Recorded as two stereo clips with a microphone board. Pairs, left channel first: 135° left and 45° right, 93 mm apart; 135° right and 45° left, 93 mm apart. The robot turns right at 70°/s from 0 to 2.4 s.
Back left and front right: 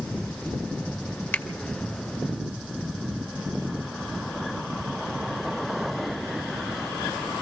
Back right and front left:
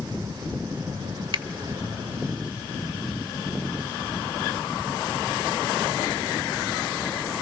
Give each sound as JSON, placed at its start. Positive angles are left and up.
{"t": 1.3, "sound": "a finger snap", "azimuth_deg": 70, "distance_m": 1.9}